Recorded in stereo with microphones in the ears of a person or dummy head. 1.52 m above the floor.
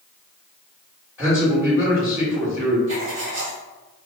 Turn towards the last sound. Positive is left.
turn(degrees=-75)  # may be behind; listen again after turning